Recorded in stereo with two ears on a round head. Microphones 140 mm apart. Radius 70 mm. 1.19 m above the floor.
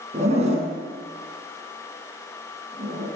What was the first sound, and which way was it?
A zipper, 45° right (ahead or behind).